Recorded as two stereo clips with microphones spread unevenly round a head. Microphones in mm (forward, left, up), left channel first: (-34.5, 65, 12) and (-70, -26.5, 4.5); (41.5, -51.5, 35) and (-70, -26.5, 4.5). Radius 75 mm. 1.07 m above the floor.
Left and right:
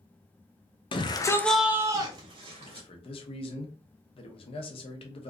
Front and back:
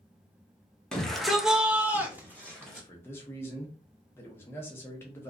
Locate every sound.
0.9 s a shout: 85° left, 0.7 m; by 2.9 s 125° right, 1.2 m
2.6 s a man speaking: 65° left, 0.8 m